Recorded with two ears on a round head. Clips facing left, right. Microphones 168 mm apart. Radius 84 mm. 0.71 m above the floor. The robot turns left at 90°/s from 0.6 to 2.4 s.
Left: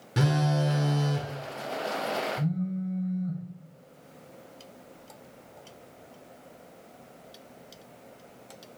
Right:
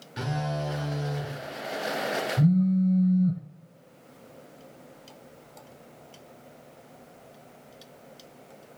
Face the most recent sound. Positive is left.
turn(degrees=-45)  # may be behind; listen again after turning